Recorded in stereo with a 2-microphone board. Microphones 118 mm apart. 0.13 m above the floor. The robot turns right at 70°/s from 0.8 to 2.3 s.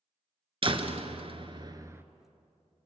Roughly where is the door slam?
Right.